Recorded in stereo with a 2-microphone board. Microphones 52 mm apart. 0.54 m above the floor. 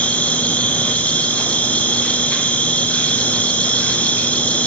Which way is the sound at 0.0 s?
30° left (ahead or behind).